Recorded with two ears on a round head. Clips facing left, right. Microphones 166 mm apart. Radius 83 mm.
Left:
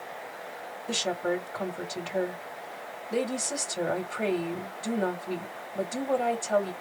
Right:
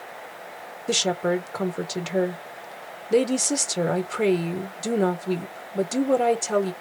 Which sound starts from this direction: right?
A woman speaking, at 0.9 s.